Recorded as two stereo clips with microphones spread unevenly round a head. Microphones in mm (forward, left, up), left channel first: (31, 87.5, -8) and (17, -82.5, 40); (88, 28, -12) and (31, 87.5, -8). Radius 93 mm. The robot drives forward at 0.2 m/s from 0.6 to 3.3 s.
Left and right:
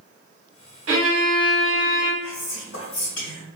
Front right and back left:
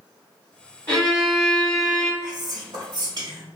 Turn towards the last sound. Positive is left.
turn(degrees=120)